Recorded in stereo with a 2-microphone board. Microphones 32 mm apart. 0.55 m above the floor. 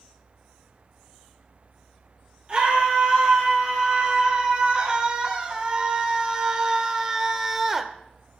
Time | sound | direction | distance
2.5 | a scream | 30° right (ahead or behind) | 7 m